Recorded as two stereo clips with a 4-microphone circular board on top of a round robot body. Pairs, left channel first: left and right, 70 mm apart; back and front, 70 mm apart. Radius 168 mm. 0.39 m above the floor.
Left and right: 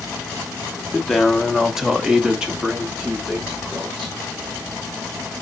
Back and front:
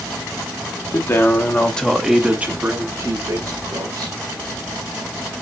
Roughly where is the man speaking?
Behind.